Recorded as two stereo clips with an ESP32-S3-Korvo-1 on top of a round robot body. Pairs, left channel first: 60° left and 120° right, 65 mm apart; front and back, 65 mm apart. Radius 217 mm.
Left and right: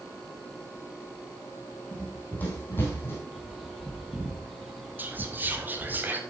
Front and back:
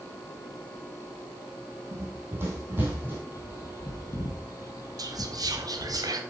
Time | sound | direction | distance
1.9 | running footsteps | 130° left | 2 m
3.3 | a bird | 30° right | 1.3 m
5.0 | whispering | straight behind | 1.9 m